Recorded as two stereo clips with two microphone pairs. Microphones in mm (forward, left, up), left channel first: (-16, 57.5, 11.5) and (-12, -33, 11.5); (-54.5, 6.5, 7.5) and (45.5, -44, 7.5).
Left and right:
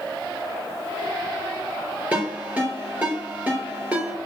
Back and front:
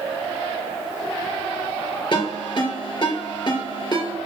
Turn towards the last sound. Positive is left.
turn(degrees=-160)